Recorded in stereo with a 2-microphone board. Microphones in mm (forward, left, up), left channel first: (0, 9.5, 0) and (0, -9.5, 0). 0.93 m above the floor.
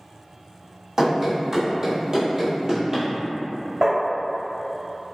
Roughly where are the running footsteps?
Right.